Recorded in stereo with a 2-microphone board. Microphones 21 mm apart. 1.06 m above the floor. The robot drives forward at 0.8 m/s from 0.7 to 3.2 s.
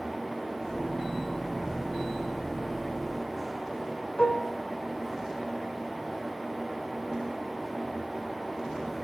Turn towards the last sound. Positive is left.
turn(degrees=45)  # may be behind; listen again after turning